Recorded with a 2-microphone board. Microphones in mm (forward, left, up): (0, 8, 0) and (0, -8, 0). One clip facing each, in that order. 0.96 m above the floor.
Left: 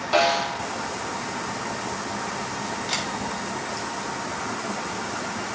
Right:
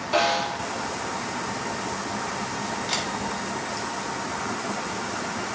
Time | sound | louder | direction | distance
0.1 | a snare drum | left 2 dB | 30° left (ahead or behind) | 3.5 m
2.9 | a camera shutter | even | 15° left (ahead or behind) | 4 m